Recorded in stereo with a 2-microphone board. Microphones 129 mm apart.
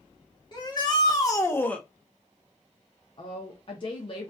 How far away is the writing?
I don't hear writing.